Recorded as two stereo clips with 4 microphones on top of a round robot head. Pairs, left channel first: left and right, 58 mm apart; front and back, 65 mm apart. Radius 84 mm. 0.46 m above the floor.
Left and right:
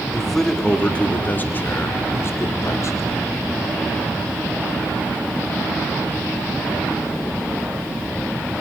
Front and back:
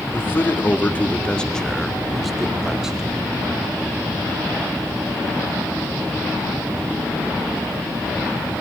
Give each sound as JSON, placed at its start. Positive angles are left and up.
{"t": 0.1, "sound": "a man speaking", "azimuth_deg": 0, "distance_m": 1.2}